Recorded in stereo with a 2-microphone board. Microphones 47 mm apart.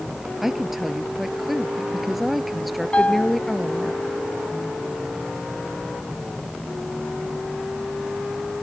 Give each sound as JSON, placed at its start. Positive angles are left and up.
{"t": 0.4, "sound": "a woman speaking", "side_deg": -5}
{"t": 2.9, "sound": "a piano", "side_deg": 30}